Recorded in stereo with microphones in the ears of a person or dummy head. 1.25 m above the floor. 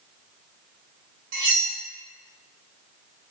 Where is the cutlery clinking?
50° right (ahead or behind), 0.9 m.